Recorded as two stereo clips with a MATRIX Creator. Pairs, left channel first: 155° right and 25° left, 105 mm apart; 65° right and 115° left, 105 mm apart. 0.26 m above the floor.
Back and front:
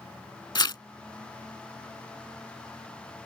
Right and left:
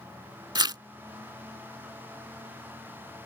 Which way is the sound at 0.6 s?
155° left.